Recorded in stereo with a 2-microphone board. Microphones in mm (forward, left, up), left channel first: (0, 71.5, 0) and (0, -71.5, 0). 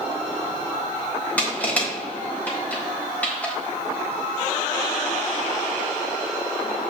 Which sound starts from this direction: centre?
Crushing, at 1.4 s.